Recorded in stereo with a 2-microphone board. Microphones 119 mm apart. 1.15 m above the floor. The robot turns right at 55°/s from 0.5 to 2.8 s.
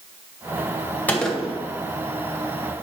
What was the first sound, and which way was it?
A gunshot, 15° left (ahead or behind).